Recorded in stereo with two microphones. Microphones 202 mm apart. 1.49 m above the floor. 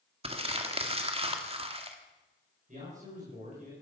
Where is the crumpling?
30° right (ahead or behind), 1.8 m.